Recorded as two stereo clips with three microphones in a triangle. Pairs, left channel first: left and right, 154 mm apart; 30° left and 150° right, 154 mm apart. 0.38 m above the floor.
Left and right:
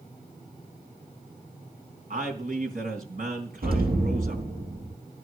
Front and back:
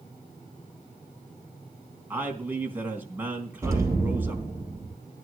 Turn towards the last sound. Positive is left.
turn(degrees=-80)